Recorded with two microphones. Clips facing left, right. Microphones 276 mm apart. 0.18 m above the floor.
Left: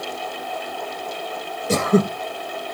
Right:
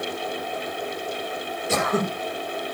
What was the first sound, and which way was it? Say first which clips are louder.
Throat clearing: left 7 dB; 40° left (ahead or behind).